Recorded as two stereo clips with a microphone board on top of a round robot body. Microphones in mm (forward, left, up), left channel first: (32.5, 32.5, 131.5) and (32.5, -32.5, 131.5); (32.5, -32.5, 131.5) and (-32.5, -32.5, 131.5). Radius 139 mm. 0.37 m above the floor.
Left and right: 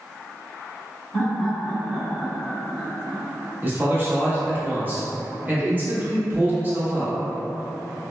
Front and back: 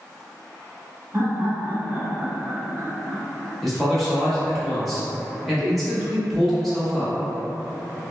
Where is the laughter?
160° left, 1.3 m; by 3.5 s 60° right, 1.4 m.